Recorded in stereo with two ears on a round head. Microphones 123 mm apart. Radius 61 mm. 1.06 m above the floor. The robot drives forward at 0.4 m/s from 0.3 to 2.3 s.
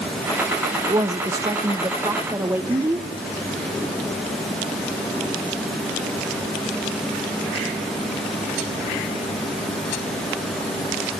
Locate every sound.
0.9 s a woman speaking: 25° right (ahead or behind), 0.8 m; by 3.1 s 20° right (ahead or behind), 1.1 m